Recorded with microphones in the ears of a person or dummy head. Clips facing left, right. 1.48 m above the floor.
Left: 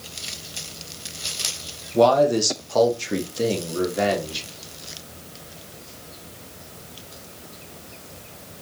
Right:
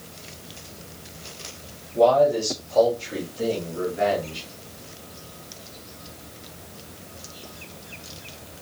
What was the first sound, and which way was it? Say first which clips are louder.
A man speaking: left 1 dB; 70° left (ahead or behind).